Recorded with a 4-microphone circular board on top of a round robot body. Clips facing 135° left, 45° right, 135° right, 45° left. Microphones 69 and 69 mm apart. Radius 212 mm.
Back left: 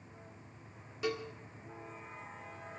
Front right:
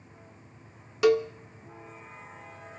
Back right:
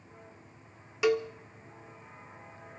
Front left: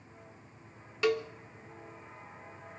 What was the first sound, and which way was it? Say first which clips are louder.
A cowbell: front right 15 dB, back right 3 dB; 55° right.